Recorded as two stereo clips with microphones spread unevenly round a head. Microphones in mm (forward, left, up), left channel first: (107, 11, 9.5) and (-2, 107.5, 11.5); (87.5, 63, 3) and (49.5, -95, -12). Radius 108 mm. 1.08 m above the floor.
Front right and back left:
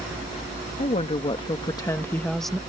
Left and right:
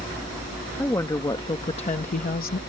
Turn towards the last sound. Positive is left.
turn(degrees=50)